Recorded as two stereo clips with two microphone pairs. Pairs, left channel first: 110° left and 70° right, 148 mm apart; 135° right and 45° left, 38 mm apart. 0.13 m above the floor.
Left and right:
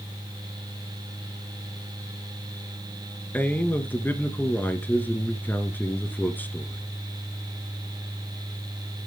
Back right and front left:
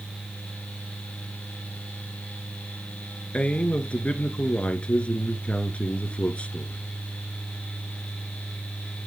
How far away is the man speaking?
About 1.8 m.